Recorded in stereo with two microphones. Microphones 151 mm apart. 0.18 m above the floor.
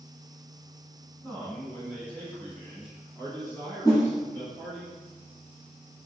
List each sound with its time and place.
1.2 s a man speaking: 15° left (ahead or behind), 1.8 m; by 4.8 s 5° left (ahead or behind), 3 m
3.9 s a whoosh: 20° left (ahead or behind), 1.7 m